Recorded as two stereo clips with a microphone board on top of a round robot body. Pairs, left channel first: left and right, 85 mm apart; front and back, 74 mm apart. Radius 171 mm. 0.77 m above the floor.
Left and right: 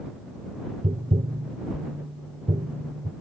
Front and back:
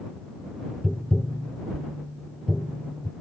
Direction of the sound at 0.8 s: 90° right.